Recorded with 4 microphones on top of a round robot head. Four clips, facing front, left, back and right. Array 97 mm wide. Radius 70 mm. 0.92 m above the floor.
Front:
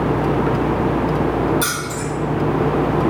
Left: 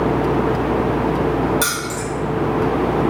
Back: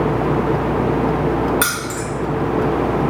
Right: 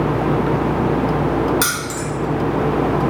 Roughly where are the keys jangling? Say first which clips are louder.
Even, back 1 dB; behind.